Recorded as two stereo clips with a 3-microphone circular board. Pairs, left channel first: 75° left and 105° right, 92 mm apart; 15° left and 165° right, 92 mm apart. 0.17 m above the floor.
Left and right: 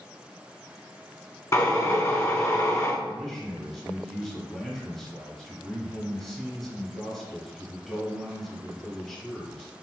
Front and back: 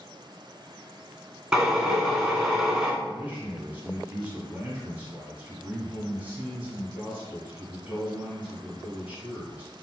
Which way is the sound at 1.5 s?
115° left.